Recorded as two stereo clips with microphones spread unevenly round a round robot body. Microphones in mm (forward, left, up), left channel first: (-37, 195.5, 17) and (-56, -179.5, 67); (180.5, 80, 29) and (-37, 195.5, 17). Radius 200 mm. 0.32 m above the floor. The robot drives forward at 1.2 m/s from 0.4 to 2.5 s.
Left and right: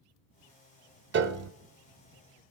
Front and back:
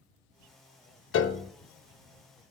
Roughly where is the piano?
Ahead right.